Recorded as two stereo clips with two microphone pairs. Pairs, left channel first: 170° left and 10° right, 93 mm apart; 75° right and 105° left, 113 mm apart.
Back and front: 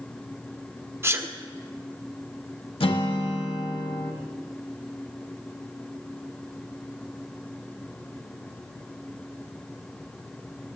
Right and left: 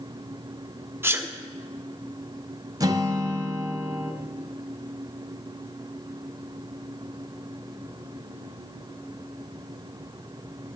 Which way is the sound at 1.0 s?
45° left.